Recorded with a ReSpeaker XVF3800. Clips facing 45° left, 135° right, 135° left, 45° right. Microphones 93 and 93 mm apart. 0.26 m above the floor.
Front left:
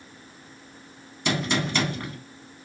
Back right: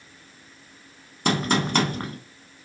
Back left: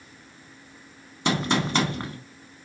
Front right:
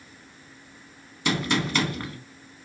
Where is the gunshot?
170° right, 0.6 m.